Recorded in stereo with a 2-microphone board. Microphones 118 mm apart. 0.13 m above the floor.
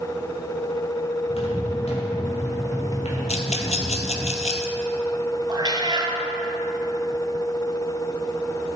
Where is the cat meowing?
40° right (ahead or behind), 1.6 m.